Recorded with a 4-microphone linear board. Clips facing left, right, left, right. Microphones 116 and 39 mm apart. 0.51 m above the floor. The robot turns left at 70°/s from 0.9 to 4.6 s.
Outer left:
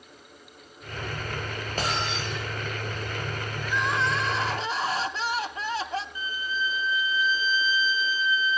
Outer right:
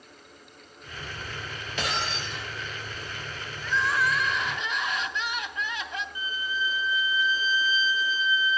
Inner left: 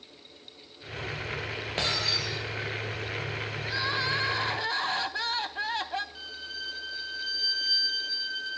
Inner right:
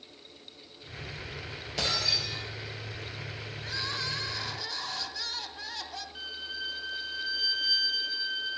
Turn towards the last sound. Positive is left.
turn(degrees=-15)  # may be behind; listen again after turning